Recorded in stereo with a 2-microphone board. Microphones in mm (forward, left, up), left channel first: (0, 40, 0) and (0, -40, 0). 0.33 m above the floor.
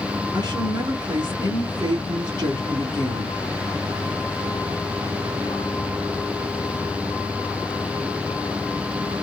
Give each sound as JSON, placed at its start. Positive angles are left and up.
{"t": 0.3, "sound": "a woman speaking", "side_deg": -65, "distance_m": 3.5}